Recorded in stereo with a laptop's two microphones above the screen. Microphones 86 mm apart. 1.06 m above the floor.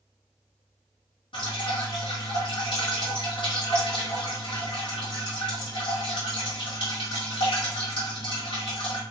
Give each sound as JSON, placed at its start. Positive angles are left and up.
{"t": 1.3, "sound": "dripping", "side_deg": 75, "distance_m": 1.7}